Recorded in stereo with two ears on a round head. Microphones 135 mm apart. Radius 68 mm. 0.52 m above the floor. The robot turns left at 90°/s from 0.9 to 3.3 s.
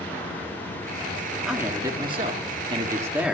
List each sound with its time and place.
1.4 s a man speaking: 5° right, 1.5 m; by 3.3 s 170° right, 1.5 m